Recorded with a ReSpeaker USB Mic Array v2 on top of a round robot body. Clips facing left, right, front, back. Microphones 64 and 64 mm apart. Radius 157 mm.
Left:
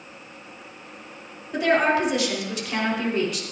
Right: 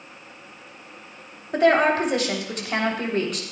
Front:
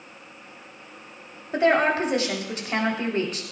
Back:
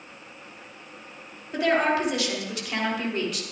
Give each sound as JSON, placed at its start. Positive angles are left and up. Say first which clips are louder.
{"t": 1.5, "sound": "a woman speaking", "louder": "right 2 dB, front 2 dB", "azimuth_deg": -55, "distance_m": 3.0}